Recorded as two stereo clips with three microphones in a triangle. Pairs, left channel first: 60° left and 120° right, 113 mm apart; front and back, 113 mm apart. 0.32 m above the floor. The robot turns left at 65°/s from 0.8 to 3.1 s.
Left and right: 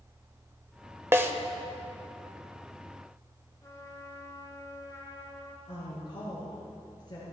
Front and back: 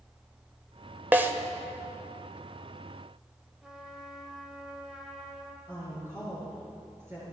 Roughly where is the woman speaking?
Left.